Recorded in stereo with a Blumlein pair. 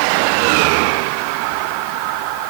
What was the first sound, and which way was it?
Only background noise.